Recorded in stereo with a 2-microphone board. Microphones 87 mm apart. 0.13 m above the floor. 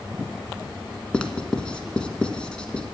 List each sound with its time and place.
1.1 s writing: 10° left (ahead or behind), 1.0 m